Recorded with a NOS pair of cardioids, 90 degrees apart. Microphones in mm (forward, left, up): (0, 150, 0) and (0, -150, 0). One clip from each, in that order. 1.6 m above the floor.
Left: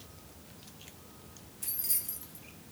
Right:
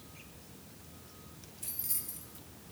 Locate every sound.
1.6 s keys jangling: 25° left, 2 m